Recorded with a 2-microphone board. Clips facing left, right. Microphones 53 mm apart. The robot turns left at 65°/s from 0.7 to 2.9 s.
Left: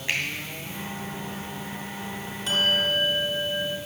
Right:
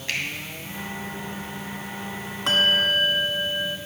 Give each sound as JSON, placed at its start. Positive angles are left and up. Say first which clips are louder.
{"t": 0.1, "sound": "a finger snap", "louder": "left 1 dB", "side_deg": 20, "distance_m": 2.5}
{"t": 2.5, "sound": "a bell", "louder": "right 3 dB", "side_deg": -70, "distance_m": 1.0}